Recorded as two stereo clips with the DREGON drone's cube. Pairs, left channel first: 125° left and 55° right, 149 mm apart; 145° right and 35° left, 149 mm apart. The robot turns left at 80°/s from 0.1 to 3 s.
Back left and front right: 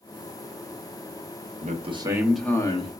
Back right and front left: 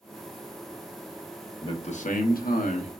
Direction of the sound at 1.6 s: 85° right.